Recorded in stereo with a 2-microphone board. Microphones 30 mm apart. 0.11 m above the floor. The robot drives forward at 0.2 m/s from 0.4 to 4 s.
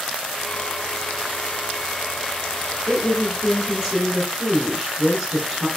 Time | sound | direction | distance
2.9 | a woman speaking | 15° right (ahead or behind) | 1.1 m